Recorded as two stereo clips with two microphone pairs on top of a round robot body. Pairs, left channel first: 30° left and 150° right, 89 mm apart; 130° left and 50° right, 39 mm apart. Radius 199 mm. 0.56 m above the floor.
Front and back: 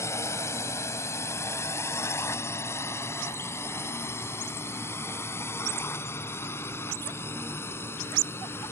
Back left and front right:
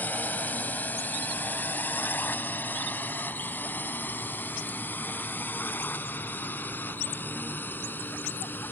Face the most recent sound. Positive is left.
turn(degrees=95)